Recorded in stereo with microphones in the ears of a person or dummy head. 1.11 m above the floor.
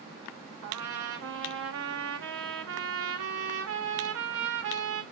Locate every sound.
0.6 s a trumpet: 60° right (ahead or behind), 0.8 m